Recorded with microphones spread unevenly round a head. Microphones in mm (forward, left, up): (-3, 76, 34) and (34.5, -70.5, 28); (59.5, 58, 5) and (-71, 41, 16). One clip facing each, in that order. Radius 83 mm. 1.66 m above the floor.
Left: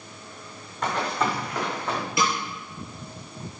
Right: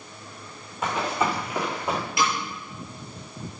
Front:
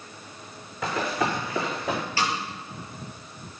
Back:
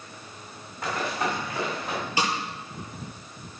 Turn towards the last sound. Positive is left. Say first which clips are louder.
# left 1 dB, back 3 dB
turn(degrees=115)